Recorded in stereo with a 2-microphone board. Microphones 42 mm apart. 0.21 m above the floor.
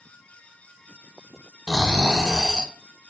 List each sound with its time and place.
1.7 s snoring: 15° right (ahead or behind), 0.9 m